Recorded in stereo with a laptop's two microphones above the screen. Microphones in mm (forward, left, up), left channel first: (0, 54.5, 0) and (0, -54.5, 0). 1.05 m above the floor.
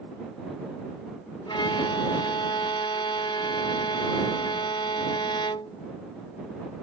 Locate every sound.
1.5 s a violin: 50° left (ahead or behind)